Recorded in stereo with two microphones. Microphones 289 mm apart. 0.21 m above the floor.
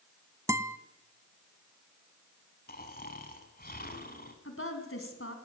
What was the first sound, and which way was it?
A guitar, 10° right (ahead or behind).